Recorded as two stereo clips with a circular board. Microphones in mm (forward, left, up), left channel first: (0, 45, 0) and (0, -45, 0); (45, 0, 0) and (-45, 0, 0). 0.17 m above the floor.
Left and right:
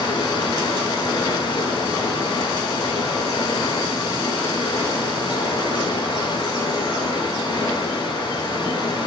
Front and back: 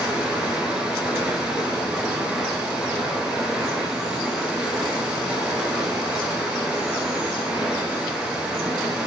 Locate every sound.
0.0 s running water: 100° left, 0.7 m